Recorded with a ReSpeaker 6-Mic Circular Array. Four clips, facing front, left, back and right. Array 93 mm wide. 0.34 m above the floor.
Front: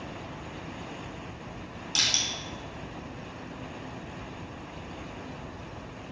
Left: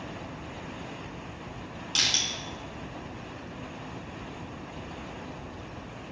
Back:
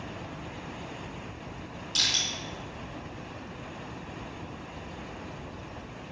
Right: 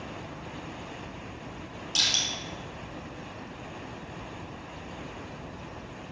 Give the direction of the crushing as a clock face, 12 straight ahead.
10 o'clock.